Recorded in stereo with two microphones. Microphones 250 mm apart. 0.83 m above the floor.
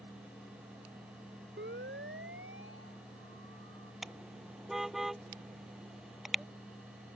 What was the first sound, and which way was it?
A siren, 45° right (ahead or behind).